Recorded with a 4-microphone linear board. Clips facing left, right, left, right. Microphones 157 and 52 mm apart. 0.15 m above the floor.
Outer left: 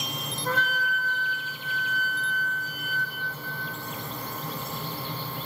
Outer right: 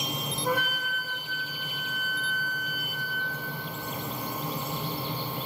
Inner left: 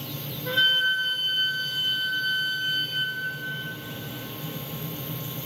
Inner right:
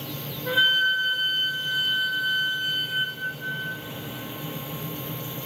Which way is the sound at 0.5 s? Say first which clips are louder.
Outer left 1 dB, inner right 2 dB; 15° right (ahead or behind).